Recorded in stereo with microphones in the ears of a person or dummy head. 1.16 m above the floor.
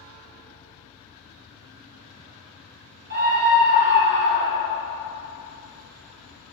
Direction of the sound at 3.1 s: 60° right (ahead or behind).